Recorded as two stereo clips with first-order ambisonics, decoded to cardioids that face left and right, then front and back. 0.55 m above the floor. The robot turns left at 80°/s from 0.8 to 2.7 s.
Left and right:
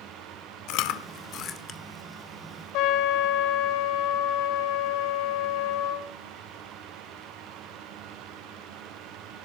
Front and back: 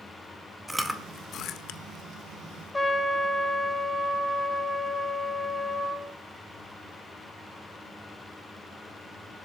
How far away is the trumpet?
About 2.5 m.